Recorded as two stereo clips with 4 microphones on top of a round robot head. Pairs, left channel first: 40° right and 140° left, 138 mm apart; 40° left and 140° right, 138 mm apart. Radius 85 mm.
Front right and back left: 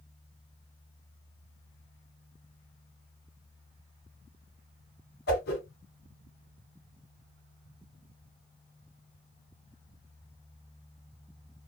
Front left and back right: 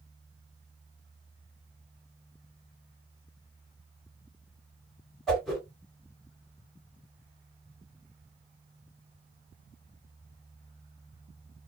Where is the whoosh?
50° right, 2.0 m.